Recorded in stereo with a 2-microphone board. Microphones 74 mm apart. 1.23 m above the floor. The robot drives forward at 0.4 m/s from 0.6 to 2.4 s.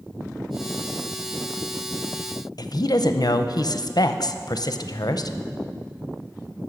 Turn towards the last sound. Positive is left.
turn(degrees=60)  # may be behind; listen again after turning